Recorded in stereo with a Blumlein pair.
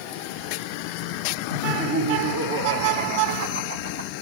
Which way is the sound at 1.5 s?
65° right.